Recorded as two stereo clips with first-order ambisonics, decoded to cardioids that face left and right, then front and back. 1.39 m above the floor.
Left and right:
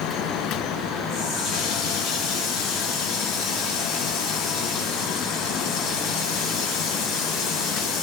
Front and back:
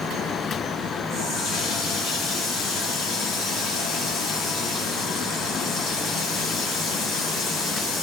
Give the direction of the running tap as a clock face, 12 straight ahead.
10 o'clock.